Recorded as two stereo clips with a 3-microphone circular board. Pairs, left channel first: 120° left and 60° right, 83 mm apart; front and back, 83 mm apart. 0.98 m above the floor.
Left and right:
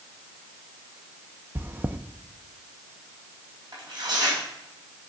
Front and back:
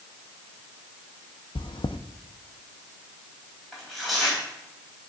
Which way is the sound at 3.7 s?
90° right.